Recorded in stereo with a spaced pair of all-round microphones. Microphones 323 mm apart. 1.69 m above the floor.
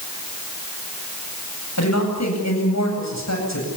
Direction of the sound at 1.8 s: 55° left (ahead or behind).